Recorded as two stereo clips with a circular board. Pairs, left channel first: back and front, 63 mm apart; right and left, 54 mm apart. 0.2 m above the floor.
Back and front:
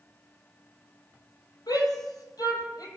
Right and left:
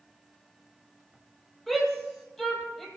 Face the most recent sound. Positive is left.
turn(degrees=-170)